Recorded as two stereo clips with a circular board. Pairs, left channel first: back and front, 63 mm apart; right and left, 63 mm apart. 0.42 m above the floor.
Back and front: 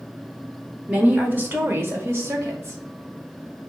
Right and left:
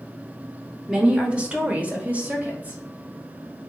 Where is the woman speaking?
35° left, 0.9 m; by 2.8 s 30° left, 1.8 m.